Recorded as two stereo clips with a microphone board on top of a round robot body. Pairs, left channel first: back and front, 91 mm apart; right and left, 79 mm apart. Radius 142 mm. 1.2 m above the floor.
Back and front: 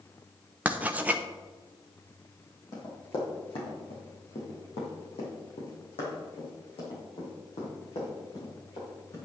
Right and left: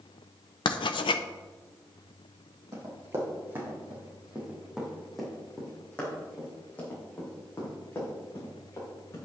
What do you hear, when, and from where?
0.7 s writing: 75° right, 0.6 m
2.7 s running footsteps: 135° left, 3.5 m; by 9.3 s 145° right, 7 m